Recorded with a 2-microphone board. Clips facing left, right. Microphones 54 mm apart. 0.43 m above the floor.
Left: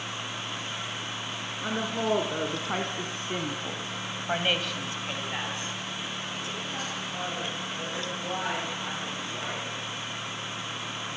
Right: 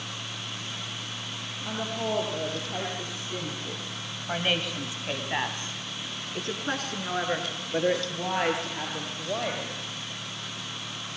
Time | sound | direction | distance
1.6 | a woman speaking | 75° left (ahead or behind) | 4.5 m